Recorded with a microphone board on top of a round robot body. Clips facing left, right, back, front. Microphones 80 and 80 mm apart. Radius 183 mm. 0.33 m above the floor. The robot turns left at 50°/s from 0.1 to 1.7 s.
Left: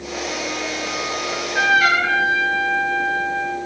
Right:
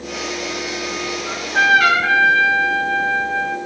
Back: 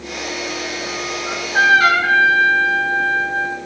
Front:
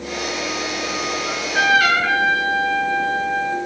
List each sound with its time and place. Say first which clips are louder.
1.3 s a trumpet: right 4 dB, back 4 dB; 100° right, 4.5 m; by 3.6 s 120° right, 4.5 m